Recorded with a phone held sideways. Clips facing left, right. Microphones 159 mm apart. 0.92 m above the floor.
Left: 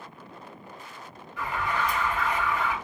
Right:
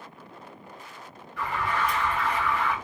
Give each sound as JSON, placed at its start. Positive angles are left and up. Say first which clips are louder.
{"t": 1.4, "sound": "an alarm", "louder": "right 1 dB", "side_deg": -50, "distance_m": 1.8}